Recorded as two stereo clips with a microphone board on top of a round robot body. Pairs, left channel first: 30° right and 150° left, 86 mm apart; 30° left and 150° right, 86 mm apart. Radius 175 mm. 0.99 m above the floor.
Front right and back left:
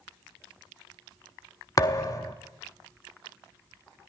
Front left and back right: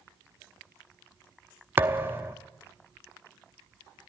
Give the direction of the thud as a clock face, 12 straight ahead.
3 o'clock.